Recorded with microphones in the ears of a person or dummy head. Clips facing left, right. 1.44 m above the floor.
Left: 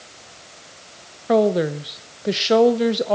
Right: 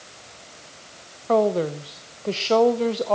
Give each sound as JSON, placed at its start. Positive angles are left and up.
{"t": 1.3, "sound": "a woman speaking", "side_deg": 20, "distance_m": 0.9}